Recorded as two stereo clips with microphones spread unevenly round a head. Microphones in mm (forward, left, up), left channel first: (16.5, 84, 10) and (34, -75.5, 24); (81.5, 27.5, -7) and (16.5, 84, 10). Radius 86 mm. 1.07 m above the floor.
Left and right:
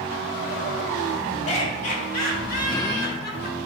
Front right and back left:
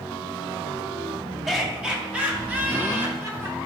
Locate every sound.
1.5 s laughter: 50° left, 2.5 m; by 3.5 s 75° left, 3.5 m